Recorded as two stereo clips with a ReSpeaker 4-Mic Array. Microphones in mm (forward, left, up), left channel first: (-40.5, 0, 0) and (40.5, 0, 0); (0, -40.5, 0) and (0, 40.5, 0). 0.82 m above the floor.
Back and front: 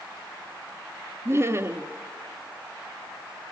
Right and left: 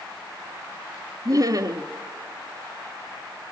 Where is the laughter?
55° left, 1.4 m.